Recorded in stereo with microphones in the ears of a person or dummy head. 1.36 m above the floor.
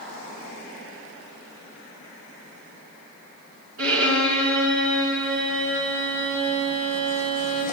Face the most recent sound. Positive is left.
turn(degrees=-70)  # may be behind; listen again after turning